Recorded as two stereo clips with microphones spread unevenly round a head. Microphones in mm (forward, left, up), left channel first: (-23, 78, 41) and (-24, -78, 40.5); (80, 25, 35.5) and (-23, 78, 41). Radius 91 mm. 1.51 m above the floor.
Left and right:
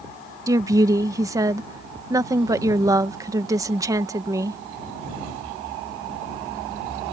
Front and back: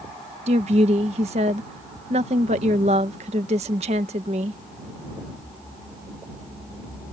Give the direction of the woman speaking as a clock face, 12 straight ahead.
5 o'clock.